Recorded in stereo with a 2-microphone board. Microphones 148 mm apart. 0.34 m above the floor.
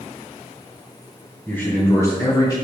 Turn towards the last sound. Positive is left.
turn(degrees=30)  # may be behind; listen again after turning